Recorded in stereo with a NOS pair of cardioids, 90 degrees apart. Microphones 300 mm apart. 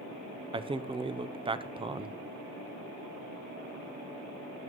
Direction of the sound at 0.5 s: 15° right.